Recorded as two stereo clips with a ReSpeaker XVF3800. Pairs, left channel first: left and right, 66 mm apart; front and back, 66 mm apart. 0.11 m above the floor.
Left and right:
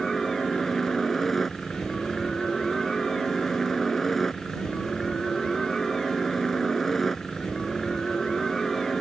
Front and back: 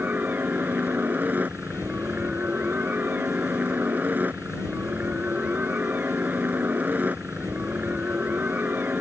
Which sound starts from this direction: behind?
A helicopter, at 0.0 s.